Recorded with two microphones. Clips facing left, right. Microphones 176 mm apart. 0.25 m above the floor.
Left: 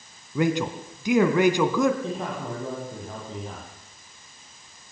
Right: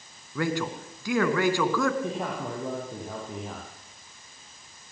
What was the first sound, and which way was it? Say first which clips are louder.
A man speaking: left 5 dB; 20° left (ahead or behind).